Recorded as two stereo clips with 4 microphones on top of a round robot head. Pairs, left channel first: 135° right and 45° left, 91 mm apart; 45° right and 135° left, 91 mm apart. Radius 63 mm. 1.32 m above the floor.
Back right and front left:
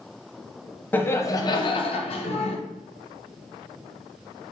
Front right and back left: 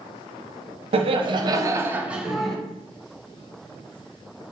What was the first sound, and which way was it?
Laughter, 155° left.